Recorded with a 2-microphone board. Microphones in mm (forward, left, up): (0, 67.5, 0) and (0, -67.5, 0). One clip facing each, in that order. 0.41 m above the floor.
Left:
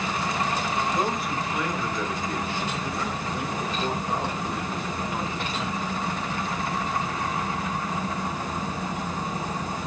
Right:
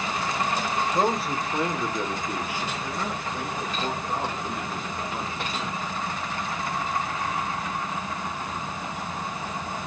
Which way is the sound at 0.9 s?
30° right (ahead or behind).